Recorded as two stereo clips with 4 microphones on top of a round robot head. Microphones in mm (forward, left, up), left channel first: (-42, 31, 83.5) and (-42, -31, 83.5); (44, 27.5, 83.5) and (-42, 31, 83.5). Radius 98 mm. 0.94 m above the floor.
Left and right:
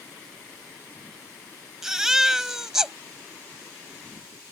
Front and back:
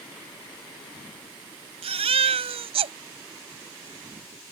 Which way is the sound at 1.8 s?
170° right.